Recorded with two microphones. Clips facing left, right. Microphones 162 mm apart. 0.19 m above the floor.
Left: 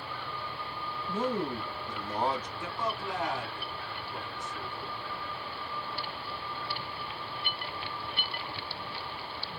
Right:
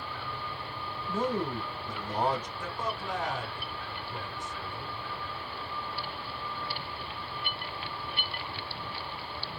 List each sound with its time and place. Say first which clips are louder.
1.1 s a man speaking: right 1 dB; 10° right (ahead or behind), 1.4 m
2.6 s a man speaking: left 1 dB; 10° right (ahead or behind), 1.3 m